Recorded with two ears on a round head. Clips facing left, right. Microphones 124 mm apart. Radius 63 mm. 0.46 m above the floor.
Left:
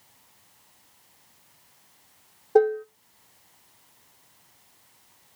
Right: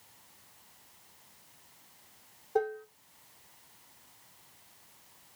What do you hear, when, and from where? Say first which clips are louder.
2.5 s dishes clattering: left 12 dB; 50° left (ahead or behind), 0.6 m